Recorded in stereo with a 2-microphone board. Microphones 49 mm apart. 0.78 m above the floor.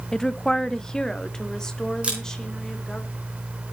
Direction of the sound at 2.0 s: 25° right (ahead or behind).